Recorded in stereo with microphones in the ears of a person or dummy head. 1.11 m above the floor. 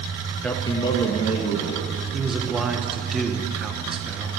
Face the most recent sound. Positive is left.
turn(degrees=0)  # may be behind; listen again after turning